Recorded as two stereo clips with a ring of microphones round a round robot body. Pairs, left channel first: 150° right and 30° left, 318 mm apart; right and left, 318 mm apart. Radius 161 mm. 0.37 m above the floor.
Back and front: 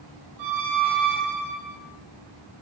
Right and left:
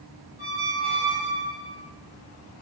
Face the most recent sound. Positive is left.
turn(degrees=10)